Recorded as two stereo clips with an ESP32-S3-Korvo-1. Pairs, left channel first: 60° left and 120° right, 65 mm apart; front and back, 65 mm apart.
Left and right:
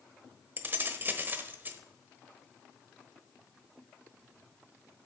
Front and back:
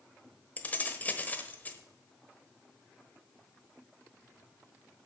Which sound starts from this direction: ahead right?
Keys jangling, at 0.6 s.